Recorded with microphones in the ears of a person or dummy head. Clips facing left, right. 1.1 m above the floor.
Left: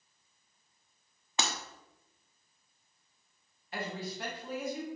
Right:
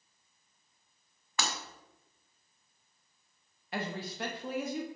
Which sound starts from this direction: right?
A woman speaking, at 3.7 s.